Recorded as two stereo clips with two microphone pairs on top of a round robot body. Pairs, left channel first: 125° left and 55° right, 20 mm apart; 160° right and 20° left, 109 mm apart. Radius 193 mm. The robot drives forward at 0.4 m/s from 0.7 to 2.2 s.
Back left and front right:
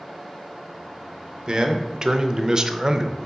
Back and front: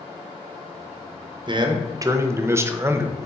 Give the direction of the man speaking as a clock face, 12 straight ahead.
1 o'clock.